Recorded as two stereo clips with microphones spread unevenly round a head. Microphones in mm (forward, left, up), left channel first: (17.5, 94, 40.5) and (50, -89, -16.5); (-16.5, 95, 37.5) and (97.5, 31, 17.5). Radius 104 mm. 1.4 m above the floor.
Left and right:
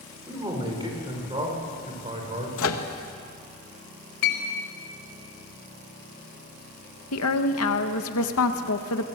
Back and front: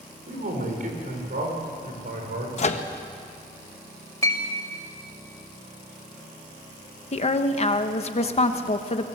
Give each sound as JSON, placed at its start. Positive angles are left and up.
{"t": 0.3, "sound": "a man speaking", "azimuth_deg": -10, "distance_m": 6.5}
{"t": 2.6, "sound": "a microwave", "azimuth_deg": 115, "distance_m": 1.6}
{"t": 4.2, "sound": "a clink", "azimuth_deg": 85, "distance_m": 5.5}
{"t": 7.1, "sound": "a woman speaking", "azimuth_deg": 110, "distance_m": 1.6}